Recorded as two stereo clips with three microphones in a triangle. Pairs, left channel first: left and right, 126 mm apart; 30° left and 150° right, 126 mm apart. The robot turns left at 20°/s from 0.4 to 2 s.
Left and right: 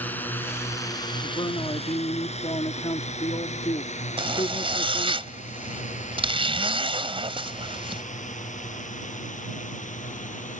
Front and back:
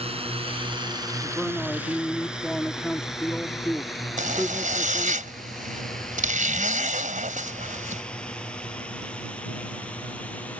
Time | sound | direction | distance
0.0 | a drone | 170° left | ?
1.2 | a man speaking | 130° left | ?
4.2 | a zipper | 135° right | ?